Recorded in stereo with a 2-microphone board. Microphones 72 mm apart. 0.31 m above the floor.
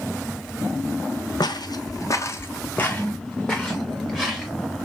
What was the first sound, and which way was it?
Footsteps, 75° left (ahead or behind).